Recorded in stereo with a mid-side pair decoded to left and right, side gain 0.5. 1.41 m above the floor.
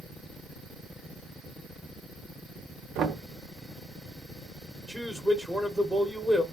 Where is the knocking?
60° right, 0.9 m.